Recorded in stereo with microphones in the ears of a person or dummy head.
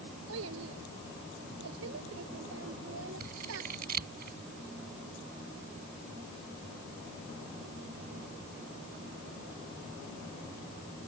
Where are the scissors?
55° right (ahead or behind).